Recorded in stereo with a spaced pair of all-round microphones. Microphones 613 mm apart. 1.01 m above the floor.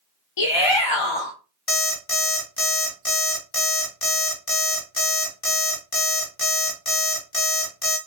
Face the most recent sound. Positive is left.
turn(degrees=60)  # may be behind; listen again after turning